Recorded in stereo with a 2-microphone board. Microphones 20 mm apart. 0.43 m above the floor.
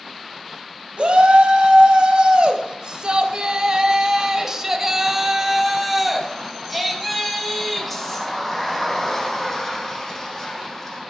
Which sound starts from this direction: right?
A shout, at 1.0 s.